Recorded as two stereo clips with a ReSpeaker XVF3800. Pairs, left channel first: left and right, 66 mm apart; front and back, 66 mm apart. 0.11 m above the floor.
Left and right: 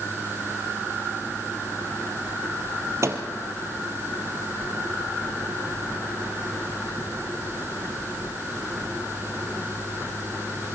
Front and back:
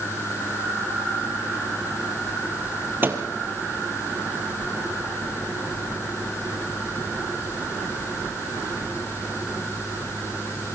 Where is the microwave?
125° right, 2 m.